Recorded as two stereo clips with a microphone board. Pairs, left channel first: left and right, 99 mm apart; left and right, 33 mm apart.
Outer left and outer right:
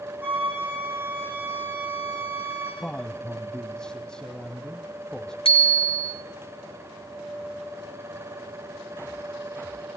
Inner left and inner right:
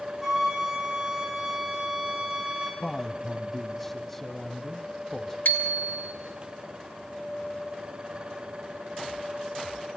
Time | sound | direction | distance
0.2 | a flute | 20° right (ahead or behind) | 7 m
2.8 | a man speaking | 10° left (ahead or behind) | 1.1 m
5.5 | a bicycle bell | 65° left (ahead or behind) | 2 m